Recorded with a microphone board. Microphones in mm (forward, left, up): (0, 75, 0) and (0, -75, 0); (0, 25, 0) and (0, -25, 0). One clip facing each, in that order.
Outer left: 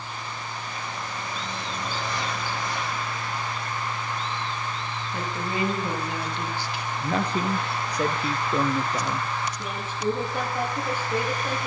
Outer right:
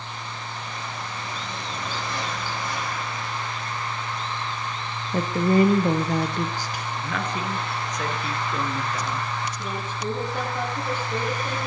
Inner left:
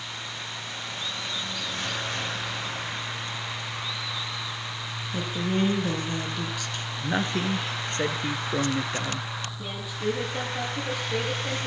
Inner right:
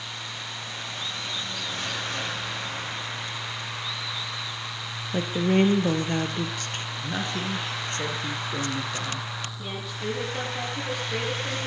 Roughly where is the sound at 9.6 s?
Centre.